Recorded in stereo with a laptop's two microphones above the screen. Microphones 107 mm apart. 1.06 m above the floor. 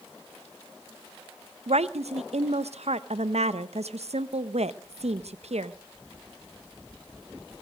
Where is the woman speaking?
85° right, 0.6 m.